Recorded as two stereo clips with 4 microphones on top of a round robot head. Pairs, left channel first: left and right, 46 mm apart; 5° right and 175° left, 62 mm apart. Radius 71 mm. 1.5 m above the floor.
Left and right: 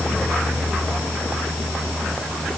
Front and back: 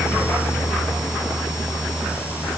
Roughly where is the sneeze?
I don't hear a sneeze.